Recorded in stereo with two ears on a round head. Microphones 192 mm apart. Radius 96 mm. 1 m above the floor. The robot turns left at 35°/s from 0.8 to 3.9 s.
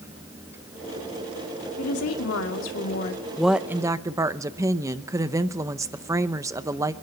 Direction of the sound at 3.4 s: Centre (ahead or behind).